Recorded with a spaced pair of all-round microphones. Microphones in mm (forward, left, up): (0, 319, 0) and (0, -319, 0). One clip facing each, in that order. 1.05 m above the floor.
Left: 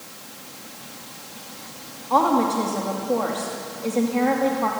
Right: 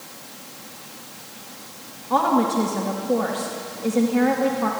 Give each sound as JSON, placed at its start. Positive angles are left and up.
{"t": 2.1, "sound": "a woman speaking", "side_deg": -45, "distance_m": 2.0}